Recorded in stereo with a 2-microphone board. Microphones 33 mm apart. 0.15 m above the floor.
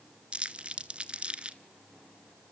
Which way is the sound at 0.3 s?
35° right (ahead or behind).